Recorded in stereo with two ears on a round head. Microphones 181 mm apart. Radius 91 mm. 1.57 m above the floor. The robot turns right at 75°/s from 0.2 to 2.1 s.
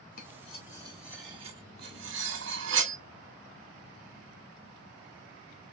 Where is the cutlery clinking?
50° left (ahead or behind), 1.7 m; by 3.0 s 60° right (ahead or behind), 1.7 m.